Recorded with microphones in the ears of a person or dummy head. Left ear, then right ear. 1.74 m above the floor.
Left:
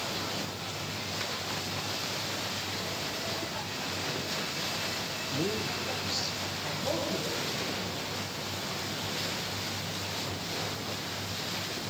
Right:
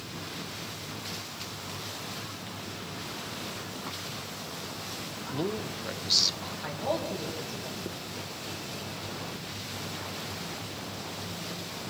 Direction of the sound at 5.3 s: 35° right (ahead or behind).